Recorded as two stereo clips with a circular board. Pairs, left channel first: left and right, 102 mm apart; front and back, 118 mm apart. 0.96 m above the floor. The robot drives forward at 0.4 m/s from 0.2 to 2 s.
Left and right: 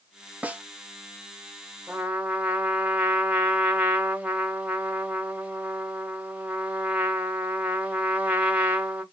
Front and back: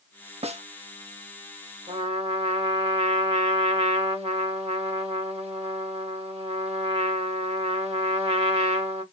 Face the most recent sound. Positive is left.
turn(degrees=-165)